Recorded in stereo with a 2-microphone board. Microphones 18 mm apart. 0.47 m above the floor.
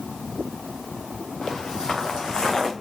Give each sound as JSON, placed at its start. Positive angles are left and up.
{"t": 1.4, "sound": "footsteps", "side_deg": 60, "distance_m": 2.0}